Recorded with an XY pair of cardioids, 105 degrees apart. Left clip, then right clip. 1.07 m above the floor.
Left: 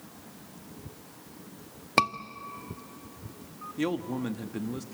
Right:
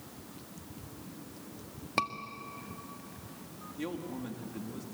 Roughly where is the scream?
Ahead left.